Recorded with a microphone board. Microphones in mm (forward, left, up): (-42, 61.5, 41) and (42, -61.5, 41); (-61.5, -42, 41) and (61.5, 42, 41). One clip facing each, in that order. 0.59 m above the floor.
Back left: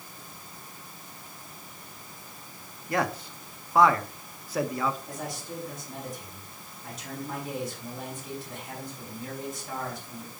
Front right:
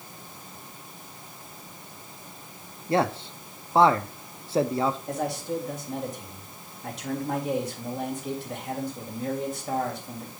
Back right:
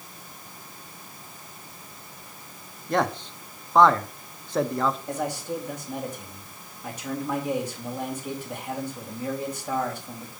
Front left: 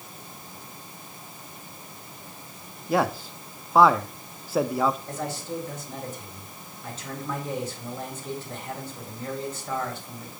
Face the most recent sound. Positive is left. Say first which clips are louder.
# front right 8 dB, back right 3 dB
turn(degrees=-70)